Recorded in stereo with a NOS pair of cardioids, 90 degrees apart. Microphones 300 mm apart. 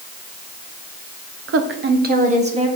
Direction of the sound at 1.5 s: 55° right.